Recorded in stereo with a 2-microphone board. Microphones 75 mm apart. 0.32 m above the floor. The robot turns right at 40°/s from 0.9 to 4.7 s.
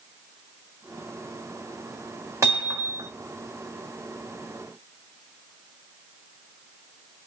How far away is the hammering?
About 1.9 m.